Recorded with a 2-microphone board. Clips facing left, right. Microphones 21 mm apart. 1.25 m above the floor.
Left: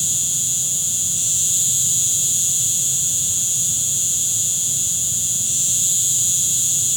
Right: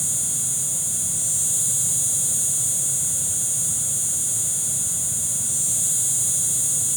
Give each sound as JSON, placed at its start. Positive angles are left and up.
{"t": 0.0, "sound": "an insect", "side_deg": 50}